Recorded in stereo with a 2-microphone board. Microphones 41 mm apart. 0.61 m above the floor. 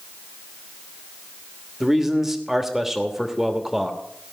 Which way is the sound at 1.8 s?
10° right (ahead or behind).